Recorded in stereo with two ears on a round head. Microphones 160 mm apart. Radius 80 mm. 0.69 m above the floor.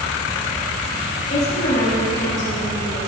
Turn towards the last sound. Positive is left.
turn(degrees=50)  # may be behind; listen again after turning